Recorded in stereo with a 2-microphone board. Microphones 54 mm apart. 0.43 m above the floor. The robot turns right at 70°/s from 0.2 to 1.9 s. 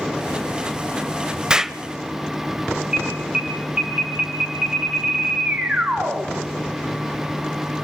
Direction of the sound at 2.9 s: 20° right (ahead or behind).